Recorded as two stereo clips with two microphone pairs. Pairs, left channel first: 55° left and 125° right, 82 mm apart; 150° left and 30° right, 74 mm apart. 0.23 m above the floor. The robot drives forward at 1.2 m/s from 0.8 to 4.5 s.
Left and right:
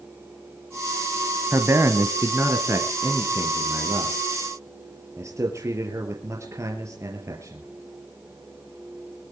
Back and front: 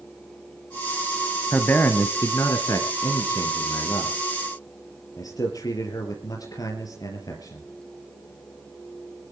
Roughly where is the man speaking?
Behind right.